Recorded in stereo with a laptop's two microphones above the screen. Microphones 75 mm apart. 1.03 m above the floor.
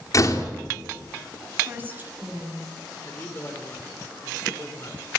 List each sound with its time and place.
0.1 s a door slam: 45° left (ahead or behind), 2.5 m
1.6 s a woman speaking: 25° right (ahead or behind), 7 m
3.0 s a man speaking: 30° left (ahead or behind), 4 m